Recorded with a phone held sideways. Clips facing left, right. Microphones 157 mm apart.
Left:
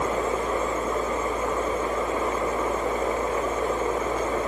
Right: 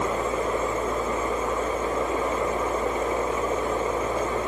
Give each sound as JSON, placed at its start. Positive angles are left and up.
{"t": 0.0, "sound": "a fan", "side_deg": -20}